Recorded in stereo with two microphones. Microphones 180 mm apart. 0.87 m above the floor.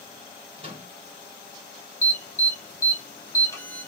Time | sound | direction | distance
0.6 | a microwave | 30° right (ahead or behind) | 2 m
2.0 | an alarm | 15° left (ahead or behind) | 2 m